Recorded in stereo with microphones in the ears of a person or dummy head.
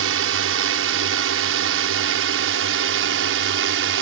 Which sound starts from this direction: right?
A drone, at 0.0 s.